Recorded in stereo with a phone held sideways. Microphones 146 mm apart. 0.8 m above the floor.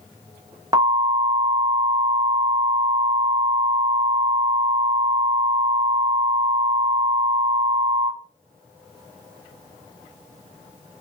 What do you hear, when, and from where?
0.7 s an alarm: 25° right (ahead or behind), 0.8 m